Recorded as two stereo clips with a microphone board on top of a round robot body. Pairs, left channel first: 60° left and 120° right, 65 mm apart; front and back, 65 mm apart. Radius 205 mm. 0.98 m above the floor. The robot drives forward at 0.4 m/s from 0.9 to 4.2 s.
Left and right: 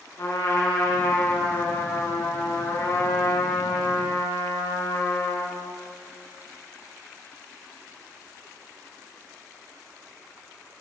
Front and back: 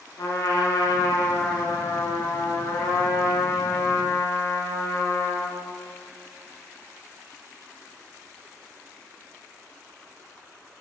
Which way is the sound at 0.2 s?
25° left.